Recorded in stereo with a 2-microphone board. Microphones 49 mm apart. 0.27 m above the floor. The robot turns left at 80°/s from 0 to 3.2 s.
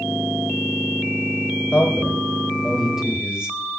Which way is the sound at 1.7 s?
20° left (ahead or behind).